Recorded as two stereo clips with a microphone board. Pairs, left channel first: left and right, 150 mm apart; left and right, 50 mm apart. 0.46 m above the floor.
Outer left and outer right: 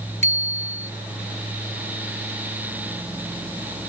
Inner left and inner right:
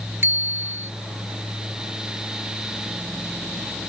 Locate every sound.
0.2 s a bicycle bell: 50° right (ahead or behind)